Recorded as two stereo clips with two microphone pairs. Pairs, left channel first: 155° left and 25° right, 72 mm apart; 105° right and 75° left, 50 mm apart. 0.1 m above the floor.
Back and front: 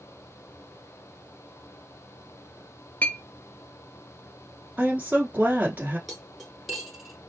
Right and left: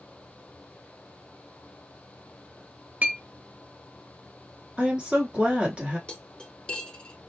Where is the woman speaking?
25° left, 1.3 m.